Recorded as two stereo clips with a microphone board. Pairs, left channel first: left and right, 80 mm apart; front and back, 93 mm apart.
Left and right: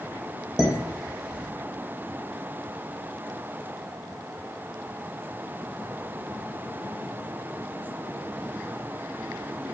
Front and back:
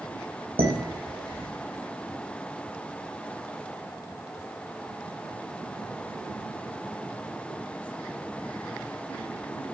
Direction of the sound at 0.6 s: 170° right.